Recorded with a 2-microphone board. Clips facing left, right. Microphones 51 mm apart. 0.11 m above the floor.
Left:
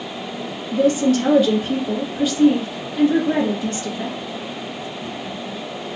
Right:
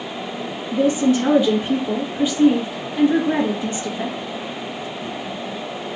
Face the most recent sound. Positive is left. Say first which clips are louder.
# left 1 dB
turn(degrees=-20)  # may be behind; listen again after turning